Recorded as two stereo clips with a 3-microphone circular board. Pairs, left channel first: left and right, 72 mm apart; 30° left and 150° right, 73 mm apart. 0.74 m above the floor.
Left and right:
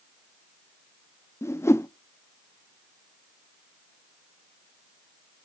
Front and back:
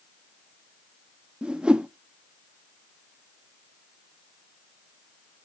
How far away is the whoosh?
About 0.5 m.